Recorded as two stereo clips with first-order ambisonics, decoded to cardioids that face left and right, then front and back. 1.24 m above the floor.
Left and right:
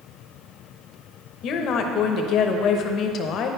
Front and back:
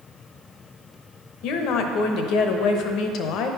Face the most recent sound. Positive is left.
turn(degrees=40)